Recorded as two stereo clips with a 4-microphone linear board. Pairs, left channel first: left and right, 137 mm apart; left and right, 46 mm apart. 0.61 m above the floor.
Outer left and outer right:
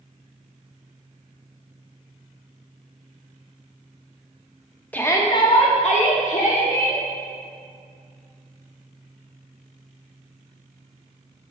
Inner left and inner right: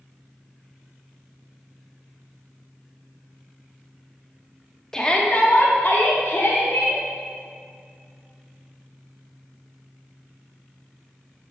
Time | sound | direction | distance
4.9 | a shout | 10° left (ahead or behind) | 0.8 m